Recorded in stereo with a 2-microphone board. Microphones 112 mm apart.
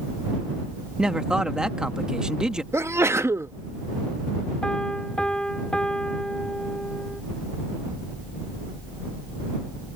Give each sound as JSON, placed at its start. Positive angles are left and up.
{"t": 1.0, "sound": "a man speaking", "side_deg": -5}
{"t": 2.7, "sound": "a sneeze", "side_deg": -25}
{"t": 4.6, "sound": "a piano", "side_deg": 5}